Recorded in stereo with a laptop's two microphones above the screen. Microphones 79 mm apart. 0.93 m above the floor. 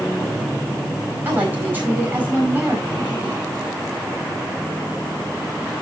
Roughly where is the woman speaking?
Right.